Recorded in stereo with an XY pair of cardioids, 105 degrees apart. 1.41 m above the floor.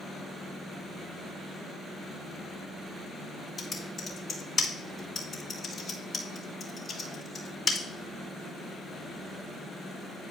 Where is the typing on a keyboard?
30° left, 2 m.